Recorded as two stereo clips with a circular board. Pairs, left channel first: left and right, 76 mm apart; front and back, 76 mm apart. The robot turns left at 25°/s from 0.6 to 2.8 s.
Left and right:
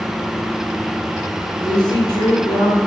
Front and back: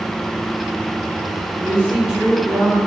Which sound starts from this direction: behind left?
A woman speaking, at 1.6 s.